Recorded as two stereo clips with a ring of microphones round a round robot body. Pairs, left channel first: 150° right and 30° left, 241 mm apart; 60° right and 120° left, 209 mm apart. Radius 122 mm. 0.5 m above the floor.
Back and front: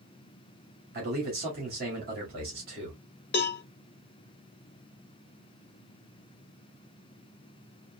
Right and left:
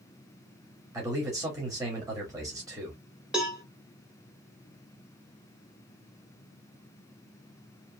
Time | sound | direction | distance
0.9 | a man speaking | 55° left | 1.7 m
3.3 | a cowbell | 155° right | 0.8 m